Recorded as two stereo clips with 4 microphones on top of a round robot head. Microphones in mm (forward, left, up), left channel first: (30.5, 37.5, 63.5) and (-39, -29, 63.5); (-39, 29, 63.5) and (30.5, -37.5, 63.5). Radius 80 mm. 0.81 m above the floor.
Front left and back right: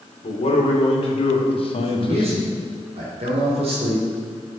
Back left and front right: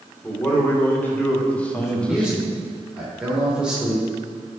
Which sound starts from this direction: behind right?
A man speaking, at 1.7 s.